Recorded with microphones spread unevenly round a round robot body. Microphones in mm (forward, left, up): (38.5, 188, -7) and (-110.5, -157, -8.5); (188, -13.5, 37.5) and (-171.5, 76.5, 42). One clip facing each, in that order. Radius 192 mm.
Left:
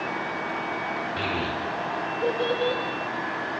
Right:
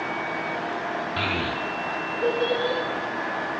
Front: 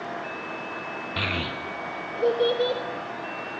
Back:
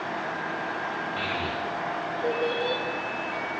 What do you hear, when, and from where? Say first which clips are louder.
1.2 s a child speaking: left 1 dB, front 3 dB; 40° right, 0.6 m; by 2.8 s 20° right, 1.7 m